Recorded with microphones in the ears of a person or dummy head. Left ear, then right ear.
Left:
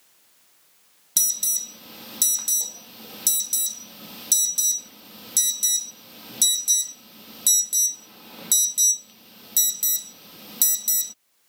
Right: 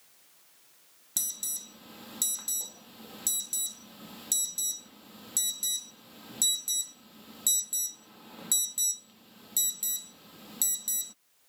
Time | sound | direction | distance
1.2 | an alarm | 15° left (ahead or behind) | ?